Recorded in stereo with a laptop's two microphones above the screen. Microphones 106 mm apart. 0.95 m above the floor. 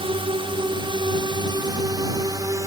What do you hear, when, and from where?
0.0 s a drone: 60° right (ahead or behind); by 2.7 s 35° right (ahead or behind)